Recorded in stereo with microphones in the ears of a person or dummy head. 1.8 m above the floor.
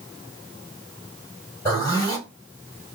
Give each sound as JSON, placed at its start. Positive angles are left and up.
{"t": 1.6, "sound": "a zipper", "side_deg": 25, "distance_m": 4.0}